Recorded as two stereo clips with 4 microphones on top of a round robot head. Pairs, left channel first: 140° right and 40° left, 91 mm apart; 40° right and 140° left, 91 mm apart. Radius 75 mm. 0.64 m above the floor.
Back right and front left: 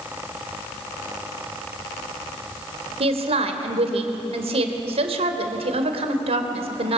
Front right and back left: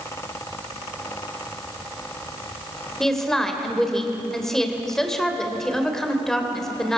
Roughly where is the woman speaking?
Ahead left.